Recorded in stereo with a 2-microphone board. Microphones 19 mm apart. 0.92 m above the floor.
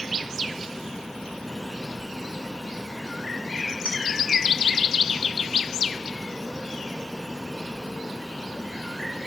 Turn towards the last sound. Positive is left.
turn(degrees=-75)  # may be behind; listen again after turning